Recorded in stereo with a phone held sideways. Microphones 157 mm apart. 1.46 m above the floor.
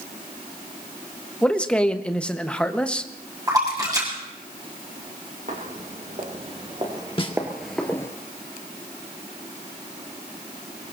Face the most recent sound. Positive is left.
turn(degrees=35)  # may be behind; listen again after turning